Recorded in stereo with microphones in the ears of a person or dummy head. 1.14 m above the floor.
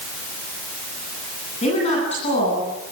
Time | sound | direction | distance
1.6 | a woman speaking | 35° left (ahead or behind) | 9 m